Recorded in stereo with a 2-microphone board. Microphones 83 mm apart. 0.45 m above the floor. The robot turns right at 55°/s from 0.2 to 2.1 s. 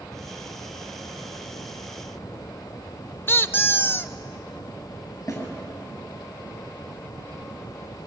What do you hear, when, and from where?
3.3 s a squeak: 30° left (ahead or behind), 0.6 m
5.3 s a snare drum: 45° left (ahead or behind), 8 m